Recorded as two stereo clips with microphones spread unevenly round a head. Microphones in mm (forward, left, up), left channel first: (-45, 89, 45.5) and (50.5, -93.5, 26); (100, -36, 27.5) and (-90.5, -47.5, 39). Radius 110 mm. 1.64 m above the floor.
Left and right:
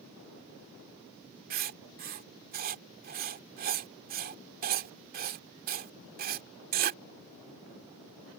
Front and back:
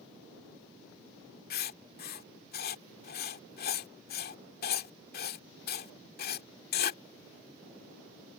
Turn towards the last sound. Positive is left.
turn(degrees=-20)